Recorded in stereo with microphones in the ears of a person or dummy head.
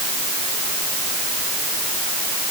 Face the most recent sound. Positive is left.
No sound to turn to.